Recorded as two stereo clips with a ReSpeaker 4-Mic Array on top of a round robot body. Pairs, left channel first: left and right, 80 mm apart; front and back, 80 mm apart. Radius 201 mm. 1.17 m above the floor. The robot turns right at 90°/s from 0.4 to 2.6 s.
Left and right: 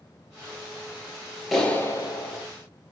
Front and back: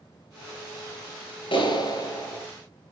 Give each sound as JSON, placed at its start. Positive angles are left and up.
{"t": 1.5, "sound": "a clap", "azimuth_deg": -5, "distance_m": 5.5}